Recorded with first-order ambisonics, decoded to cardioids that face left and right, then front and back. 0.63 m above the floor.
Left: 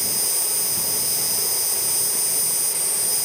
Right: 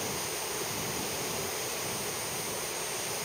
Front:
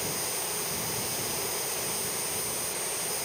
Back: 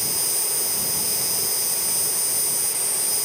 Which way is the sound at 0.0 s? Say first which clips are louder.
Left 8 dB, back 6 dB; 125° left.